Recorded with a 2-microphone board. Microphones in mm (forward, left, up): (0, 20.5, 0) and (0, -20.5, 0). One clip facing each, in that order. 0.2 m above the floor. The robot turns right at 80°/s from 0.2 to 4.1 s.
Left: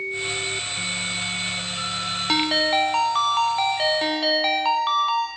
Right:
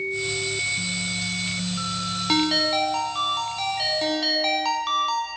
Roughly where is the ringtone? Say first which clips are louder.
Left 1 dB; ahead.